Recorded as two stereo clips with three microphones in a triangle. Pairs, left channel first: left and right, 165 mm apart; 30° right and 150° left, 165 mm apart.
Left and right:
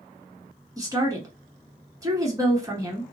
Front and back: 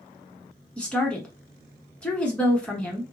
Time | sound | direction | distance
0.8 | a woman speaking | 105° right | 1.1 m